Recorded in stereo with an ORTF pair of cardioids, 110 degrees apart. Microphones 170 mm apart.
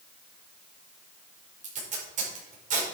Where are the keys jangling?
No keys jangling in this recording.